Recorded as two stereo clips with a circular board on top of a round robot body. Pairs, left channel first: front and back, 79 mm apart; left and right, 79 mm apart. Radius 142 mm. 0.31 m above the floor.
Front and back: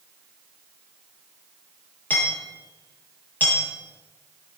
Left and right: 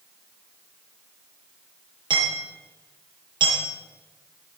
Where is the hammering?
70° right, 9.5 m.